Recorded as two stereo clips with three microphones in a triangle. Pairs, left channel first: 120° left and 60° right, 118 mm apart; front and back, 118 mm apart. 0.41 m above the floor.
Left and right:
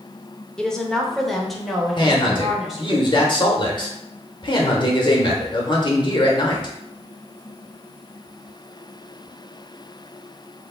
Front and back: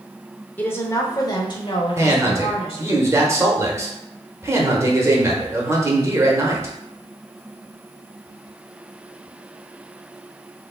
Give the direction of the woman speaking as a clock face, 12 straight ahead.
10 o'clock.